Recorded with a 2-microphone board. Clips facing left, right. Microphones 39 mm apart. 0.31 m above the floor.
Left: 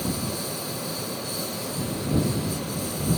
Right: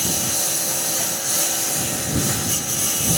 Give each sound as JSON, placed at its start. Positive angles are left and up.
{"t": 0.0, "sound": "a lawn mower", "side_deg": -70}